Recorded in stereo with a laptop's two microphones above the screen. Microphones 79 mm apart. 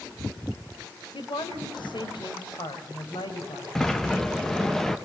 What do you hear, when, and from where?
1.1 s a woman speaking: 75° left (ahead or behind), 3.5 m
3.8 s a sliding door: 5° left (ahead or behind), 0.9 m